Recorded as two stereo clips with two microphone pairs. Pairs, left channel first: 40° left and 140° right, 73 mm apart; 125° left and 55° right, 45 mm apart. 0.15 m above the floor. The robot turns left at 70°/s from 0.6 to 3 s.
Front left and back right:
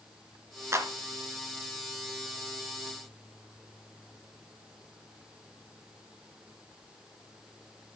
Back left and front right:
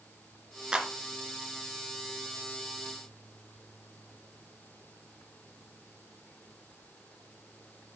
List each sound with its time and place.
0.7 s a clap: 115° right, 2.0 m; by 0.9 s 130° right, 2.0 m